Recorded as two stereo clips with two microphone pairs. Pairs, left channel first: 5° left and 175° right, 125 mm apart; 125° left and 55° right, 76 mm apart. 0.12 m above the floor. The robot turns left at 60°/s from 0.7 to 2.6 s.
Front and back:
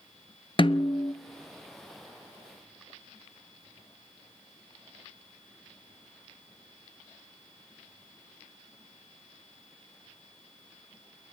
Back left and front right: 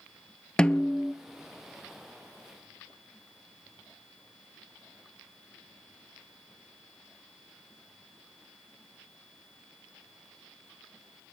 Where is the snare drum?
50° left, 0.6 m; by 1.1 s 20° left, 0.6 m.